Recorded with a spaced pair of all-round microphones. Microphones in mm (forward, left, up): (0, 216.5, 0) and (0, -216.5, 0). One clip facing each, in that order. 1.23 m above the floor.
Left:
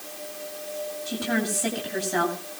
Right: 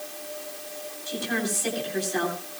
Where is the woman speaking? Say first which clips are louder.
Left 2 dB; 75° left (ahead or behind), 9.5 m.